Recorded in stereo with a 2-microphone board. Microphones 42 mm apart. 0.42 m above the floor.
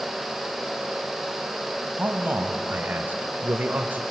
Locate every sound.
2.0 s a man speaking: 45° right (ahead or behind), 2.5 m